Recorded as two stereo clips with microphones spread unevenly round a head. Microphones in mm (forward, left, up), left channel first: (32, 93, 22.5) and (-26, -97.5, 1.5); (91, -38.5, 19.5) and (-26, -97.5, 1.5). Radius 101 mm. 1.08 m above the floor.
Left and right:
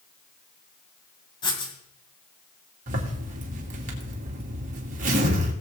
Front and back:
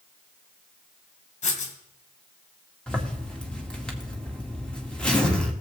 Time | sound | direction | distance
1.4 | writing | 10° left | 2 m
2.9 | a zipper | 60° right | 2.5 m